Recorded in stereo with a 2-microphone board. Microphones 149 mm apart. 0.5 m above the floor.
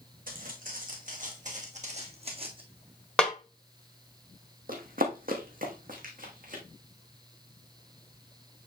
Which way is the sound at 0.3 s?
70° right (ahead or behind).